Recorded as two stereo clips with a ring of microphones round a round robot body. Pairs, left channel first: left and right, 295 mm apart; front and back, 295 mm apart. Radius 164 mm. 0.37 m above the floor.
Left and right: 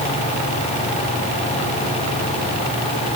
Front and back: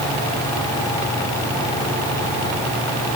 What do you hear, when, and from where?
Only background noise.